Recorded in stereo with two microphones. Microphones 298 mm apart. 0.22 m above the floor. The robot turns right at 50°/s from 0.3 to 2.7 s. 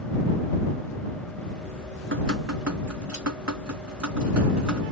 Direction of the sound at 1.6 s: 155° right.